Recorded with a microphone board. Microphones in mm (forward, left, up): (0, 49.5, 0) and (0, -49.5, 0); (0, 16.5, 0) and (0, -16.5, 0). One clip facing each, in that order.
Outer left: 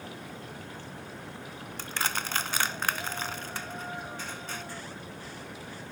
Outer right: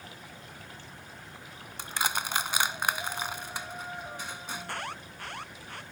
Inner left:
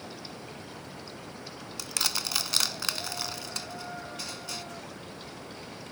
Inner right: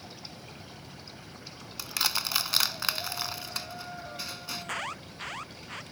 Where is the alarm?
70° right (ahead or behind).